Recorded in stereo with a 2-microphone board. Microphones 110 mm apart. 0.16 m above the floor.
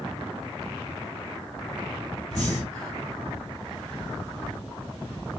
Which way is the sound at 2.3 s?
10° left (ahead or behind).